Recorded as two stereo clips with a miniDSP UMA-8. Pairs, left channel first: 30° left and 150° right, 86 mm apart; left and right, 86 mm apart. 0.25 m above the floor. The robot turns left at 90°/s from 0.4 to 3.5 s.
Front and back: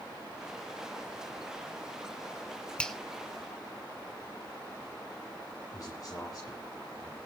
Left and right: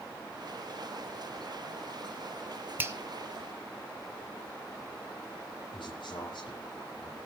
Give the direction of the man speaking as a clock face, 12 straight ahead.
10 o'clock.